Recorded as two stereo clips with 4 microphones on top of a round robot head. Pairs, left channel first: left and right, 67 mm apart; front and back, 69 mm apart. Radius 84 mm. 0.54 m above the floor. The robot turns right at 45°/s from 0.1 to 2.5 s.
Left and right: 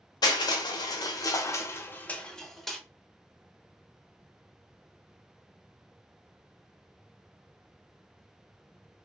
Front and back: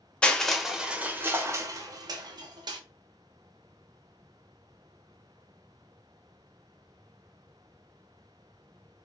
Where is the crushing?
75° left, 0.7 m; by 2.8 s 175° left, 0.7 m.